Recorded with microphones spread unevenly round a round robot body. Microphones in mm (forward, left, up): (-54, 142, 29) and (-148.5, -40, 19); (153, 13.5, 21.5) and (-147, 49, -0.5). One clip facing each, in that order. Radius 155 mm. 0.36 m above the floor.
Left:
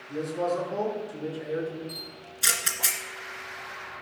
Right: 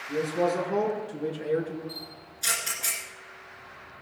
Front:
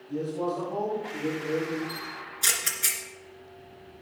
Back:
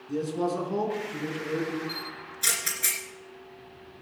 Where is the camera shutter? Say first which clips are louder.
Left 1 dB, even; 80° left, 2.5 m.